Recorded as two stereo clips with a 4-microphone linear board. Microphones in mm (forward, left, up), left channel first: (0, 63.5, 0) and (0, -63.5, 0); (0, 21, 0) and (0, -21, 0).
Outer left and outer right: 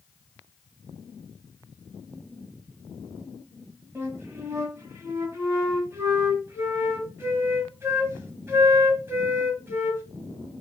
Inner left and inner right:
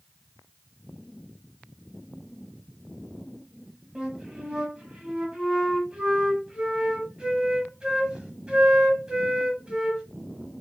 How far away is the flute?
About 1.1 m.